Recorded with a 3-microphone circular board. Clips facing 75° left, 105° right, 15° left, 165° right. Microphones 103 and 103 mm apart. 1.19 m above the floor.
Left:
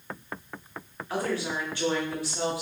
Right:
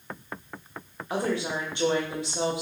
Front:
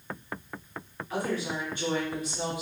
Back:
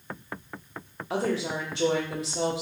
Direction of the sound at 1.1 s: 175° right.